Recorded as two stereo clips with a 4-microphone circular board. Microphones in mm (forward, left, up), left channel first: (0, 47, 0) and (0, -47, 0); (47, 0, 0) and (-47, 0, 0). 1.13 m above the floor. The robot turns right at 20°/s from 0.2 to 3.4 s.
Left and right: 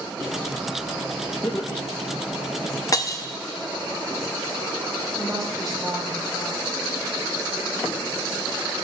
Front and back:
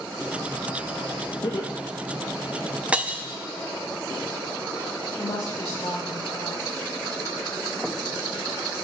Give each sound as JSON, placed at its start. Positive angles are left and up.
{"t": 1.4, "sound": "laughter", "azimuth_deg": 35, "distance_m": 1.4}
{"t": 2.9, "sound": "breaking glass", "azimuth_deg": 110, "distance_m": 0.6}
{"t": 5.2, "sound": "a woman speaking", "azimuth_deg": 5, "distance_m": 6.0}